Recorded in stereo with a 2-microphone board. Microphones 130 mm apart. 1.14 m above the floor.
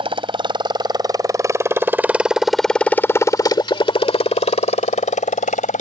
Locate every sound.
0.0 s a motorcycle: 40° right (ahead or behind); by 5.8 s 75° left (ahead or behind)